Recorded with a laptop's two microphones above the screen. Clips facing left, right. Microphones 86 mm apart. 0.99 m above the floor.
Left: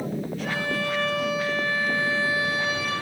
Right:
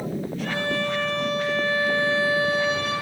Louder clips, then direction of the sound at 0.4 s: Right 2 dB; 5° left (ahead or behind).